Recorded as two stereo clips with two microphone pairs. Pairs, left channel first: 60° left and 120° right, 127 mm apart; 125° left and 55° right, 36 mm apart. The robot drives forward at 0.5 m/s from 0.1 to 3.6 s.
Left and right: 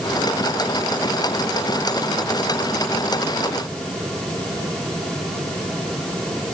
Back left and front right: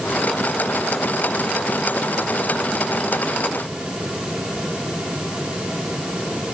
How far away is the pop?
No pop in this recording.